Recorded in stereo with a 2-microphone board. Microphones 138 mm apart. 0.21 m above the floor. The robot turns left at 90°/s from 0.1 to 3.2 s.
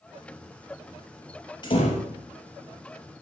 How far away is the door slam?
About 3 m.